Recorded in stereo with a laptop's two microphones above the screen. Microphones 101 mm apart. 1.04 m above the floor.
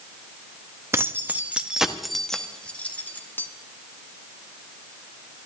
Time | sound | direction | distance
0.9 | keys jangling | 30° right (ahead or behind) | 1.1 m